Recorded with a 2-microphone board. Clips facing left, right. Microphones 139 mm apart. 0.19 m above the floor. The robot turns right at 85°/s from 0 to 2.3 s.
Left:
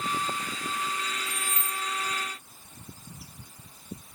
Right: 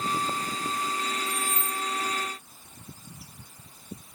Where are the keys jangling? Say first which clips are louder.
Right 4 dB; 140° left, 1.0 m; by 1.8 s straight behind, 1.0 m.